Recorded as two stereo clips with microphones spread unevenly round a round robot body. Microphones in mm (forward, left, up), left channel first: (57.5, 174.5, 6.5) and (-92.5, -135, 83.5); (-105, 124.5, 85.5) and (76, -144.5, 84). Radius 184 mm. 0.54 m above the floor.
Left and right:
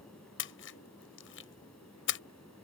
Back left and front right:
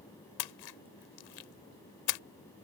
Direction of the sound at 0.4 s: 120° left.